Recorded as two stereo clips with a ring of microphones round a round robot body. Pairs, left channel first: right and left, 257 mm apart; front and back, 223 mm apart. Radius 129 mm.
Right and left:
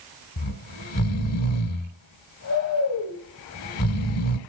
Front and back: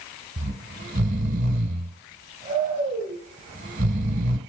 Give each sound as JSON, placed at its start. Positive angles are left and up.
{"t": 0.4, "sound": "snoring", "azimuth_deg": -120, "distance_m": 1.3}